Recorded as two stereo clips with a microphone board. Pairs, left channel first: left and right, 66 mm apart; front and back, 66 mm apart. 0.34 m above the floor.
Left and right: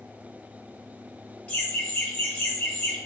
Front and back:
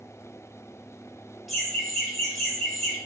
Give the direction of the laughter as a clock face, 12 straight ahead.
9 o'clock.